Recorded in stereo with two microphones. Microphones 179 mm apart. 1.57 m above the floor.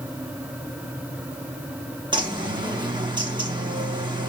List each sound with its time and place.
2.1 s a bird: 25° right (ahead or behind), 1.2 m